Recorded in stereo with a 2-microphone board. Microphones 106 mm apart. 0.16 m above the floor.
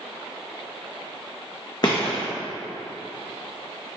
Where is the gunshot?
45° left (ahead or behind), 3 m.